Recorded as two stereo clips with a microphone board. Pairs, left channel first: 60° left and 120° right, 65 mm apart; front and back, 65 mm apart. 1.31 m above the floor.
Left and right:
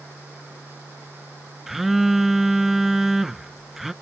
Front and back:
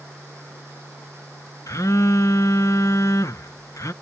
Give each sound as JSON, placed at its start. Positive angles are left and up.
{"t": 1.7, "sound": "a phone buzzing", "azimuth_deg": -35}